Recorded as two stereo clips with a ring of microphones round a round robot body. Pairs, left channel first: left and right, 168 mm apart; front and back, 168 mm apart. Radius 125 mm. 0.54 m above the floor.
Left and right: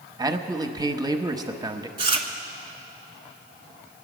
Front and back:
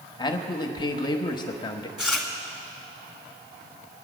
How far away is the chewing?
About 1.3 m.